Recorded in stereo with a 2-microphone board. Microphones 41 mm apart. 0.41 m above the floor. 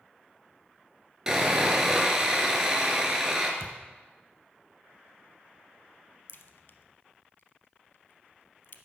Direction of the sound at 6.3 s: 60° left (ahead or behind).